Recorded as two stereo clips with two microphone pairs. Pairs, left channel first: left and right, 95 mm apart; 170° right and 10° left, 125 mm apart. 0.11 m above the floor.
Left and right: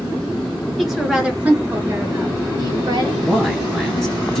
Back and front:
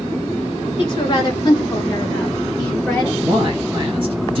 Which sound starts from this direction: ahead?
A man speaking, at 3.2 s.